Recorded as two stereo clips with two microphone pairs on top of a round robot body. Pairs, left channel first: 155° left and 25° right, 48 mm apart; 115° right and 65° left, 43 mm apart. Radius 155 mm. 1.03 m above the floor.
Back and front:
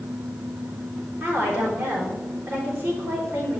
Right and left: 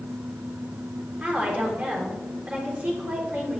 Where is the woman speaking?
Straight ahead, 3.5 m.